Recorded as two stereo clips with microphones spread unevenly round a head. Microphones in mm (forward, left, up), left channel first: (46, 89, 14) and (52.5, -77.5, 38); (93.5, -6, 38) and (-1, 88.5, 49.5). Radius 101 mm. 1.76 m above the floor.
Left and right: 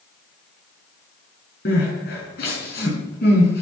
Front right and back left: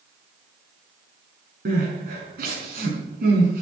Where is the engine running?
No engine running in this recording.